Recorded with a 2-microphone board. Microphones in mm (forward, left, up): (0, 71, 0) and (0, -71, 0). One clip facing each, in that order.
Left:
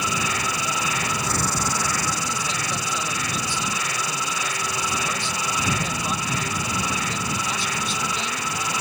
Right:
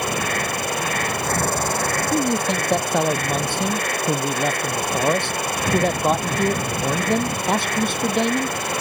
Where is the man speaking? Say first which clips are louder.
Right 10 dB; 60° right (ahead or behind).